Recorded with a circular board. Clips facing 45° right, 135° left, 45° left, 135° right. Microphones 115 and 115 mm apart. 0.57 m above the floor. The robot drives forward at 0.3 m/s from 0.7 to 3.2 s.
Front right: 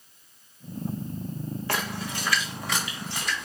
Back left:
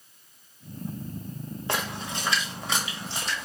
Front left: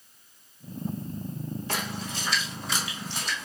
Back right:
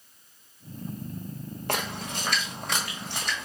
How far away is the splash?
About 1.1 m.